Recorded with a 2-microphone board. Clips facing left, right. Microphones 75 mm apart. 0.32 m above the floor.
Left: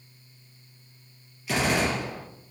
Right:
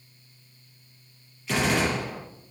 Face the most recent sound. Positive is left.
turn(degrees=5)  # may be behind; listen again after turning